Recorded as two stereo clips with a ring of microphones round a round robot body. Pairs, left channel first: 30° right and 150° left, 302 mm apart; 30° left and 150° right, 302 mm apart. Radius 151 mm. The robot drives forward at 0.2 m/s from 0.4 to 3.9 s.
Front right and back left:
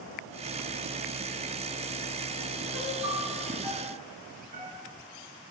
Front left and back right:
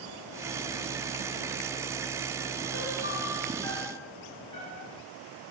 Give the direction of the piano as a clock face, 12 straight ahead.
7 o'clock.